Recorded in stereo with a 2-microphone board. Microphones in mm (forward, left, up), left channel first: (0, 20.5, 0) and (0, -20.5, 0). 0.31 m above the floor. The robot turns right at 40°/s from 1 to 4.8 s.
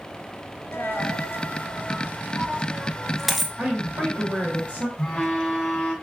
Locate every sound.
0.7 s a dropped coin: 80° left, 0.6 m; by 3.5 s 10° right (ahead or behind), 0.6 m
3.6 s a woman speaking: 100° right, 1.5 m; by 4.9 s 50° right, 1.5 m
5.0 s a phone buzzing: 20° left (ahead or behind), 0.8 m